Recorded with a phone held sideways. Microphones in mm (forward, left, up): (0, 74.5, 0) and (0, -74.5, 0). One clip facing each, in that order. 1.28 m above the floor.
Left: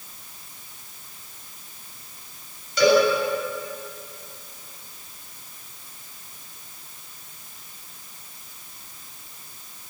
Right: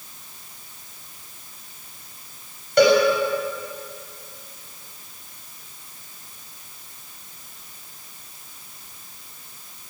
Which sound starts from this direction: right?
A cowbell, at 2.8 s.